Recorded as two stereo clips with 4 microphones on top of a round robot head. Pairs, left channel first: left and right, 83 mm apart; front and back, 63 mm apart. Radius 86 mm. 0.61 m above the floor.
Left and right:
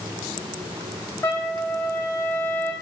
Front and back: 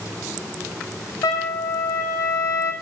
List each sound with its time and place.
1.2 s a trumpet: 20° left, 0.6 m